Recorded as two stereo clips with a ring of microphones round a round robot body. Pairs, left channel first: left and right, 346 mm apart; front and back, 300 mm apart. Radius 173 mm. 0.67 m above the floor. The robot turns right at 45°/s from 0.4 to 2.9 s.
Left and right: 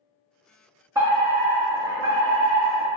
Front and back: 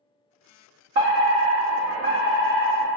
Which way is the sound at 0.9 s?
165° right.